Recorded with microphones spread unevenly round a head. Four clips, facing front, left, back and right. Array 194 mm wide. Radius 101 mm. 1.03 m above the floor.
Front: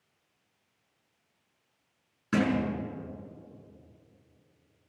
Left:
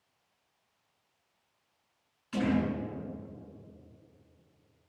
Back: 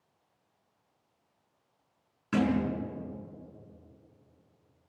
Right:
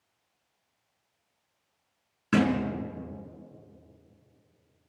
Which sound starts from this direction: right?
A thud, at 2.3 s.